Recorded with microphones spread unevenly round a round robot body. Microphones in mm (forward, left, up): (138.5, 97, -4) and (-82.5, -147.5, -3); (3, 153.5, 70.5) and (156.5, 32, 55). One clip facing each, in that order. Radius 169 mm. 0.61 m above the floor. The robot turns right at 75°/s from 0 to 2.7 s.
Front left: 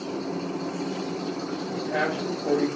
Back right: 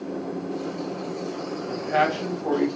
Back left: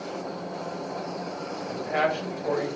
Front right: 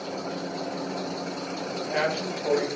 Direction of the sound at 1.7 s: 145° right.